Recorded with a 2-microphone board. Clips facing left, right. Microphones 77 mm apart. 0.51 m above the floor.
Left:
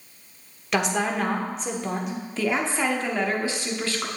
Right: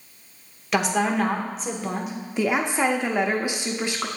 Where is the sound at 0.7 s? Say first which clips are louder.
Right 2 dB; centre (ahead or behind), 1.0 m.